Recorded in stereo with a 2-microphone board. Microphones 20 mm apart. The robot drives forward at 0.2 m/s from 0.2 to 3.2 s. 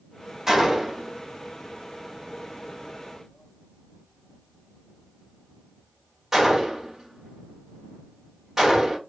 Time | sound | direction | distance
0.5 | a gunshot | 20° right (ahead or behind) | 1.5 m